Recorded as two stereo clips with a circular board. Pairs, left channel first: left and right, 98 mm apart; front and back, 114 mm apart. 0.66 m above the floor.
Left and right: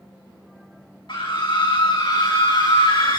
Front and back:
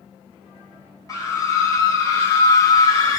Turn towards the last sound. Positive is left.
turn(degrees=55)